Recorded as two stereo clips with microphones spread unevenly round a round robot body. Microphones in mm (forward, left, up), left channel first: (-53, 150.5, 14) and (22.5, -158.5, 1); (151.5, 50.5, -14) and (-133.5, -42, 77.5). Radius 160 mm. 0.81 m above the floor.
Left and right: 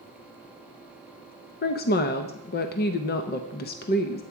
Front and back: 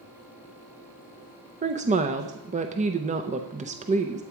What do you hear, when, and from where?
1.6 s a woman speaking: 120° left, 0.6 m